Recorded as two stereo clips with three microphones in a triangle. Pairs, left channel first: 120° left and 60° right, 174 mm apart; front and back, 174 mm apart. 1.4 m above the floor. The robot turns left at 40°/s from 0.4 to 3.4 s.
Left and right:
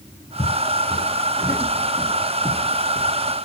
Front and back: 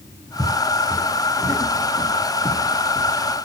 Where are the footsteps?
145° left, 1.6 m; by 3.1 s 160° left, 1.8 m.